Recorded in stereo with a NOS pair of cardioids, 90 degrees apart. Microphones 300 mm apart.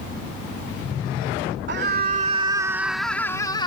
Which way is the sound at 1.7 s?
40° right.